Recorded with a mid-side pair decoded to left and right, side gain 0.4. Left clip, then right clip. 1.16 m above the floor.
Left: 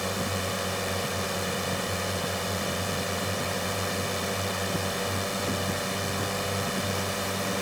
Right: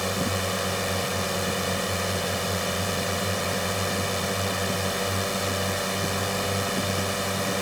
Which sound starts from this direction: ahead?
A drone, at 0.0 s.